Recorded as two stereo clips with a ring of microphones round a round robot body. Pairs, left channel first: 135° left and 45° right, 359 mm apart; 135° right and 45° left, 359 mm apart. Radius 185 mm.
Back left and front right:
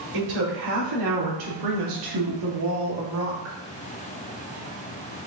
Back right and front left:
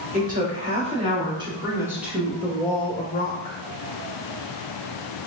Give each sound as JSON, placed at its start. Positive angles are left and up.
{"t": 0.1, "sound": "a woman speaking", "azimuth_deg": -20, "distance_m": 2.5}